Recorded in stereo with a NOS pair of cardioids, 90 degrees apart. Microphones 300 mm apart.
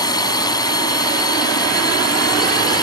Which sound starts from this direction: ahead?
A drone, at 0.0 s.